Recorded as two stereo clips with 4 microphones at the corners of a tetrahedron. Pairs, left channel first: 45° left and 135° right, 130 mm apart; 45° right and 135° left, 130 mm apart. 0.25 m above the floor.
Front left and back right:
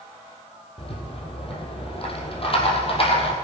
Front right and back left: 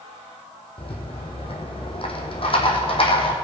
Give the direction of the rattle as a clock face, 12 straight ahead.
12 o'clock.